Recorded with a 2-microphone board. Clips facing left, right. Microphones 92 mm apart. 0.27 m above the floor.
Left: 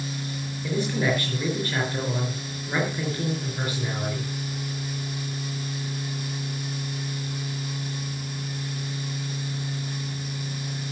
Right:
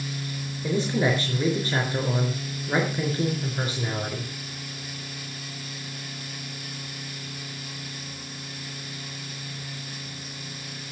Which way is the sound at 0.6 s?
25° right (ahead or behind).